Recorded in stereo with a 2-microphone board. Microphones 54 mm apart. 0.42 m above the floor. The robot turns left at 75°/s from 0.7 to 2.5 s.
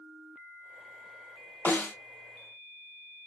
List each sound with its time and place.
1.6 s a snare drum: 35° left (ahead or behind), 1.7 m